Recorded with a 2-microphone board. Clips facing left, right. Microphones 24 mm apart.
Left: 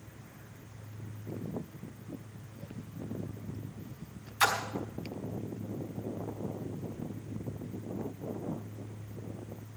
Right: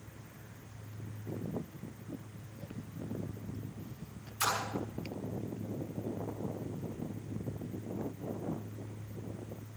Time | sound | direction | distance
4.4 | a splash | 75° left (ahead or behind) | 4 m